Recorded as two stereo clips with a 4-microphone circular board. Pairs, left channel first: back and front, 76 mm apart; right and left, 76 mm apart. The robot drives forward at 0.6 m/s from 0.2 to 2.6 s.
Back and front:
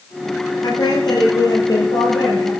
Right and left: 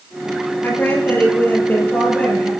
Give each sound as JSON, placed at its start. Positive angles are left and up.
{"t": 0.6, "sound": "a woman speaking", "azimuth_deg": -155, "distance_m": 5.0}